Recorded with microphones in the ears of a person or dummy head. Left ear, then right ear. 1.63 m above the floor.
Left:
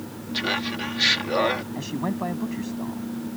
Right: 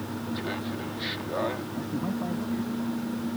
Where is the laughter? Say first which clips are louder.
Left 10 dB; 80° left.